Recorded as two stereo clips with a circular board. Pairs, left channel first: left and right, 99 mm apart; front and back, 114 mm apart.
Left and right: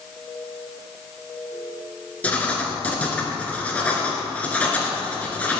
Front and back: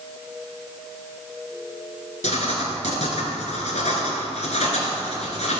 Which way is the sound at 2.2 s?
15° left.